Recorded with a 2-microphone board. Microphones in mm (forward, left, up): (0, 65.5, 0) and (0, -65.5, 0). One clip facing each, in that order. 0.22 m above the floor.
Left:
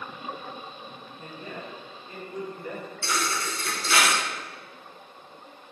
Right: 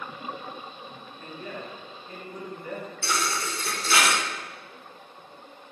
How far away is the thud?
About 1.7 m.